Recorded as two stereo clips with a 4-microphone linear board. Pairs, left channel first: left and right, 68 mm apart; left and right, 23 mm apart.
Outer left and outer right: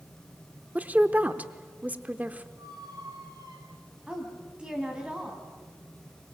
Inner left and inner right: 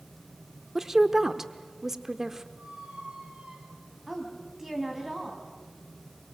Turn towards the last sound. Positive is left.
turn(degrees=-15)  # may be behind; listen again after turning